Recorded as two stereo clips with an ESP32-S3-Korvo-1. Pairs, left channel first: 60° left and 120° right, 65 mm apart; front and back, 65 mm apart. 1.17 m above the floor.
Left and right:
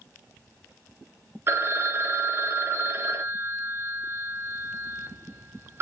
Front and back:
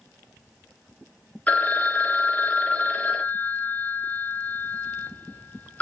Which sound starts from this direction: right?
A phone ringing, at 1.5 s.